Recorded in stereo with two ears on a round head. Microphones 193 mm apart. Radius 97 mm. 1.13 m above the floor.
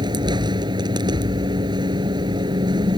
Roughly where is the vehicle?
Centre.